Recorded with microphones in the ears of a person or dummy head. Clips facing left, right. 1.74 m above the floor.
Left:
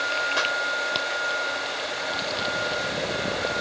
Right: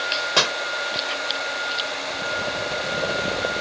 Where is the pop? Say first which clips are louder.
Right 7 dB; 70° right (ahead or behind).